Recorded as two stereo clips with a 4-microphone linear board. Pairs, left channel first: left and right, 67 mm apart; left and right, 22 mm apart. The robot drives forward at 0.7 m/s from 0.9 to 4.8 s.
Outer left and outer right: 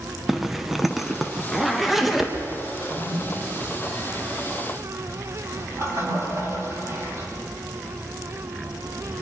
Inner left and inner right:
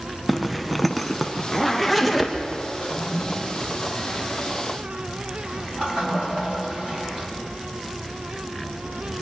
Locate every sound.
0.3 s a zipper: 5° right (ahead or behind), 1.1 m; by 2.3 s centre (ahead or behind), 2 m
2.8 s a toilet flushing: 60° right (ahead or behind), 4 m; by 7.3 s 45° right (ahead or behind), 5 m